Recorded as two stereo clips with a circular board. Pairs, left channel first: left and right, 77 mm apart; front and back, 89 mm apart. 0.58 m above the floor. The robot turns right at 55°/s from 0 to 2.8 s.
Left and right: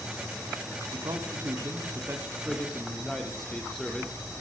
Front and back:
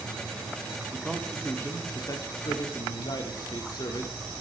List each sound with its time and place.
0.9 s a man speaking: 95° right, 1.1 m; by 4.1 s 5° left, 1.1 m